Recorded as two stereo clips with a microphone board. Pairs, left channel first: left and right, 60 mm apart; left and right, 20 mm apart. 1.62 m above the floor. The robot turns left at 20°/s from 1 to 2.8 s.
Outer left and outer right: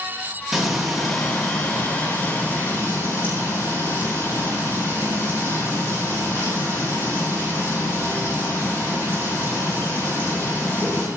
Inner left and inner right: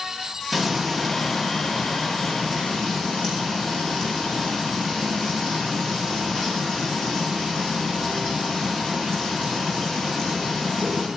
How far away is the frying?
About 7.5 m.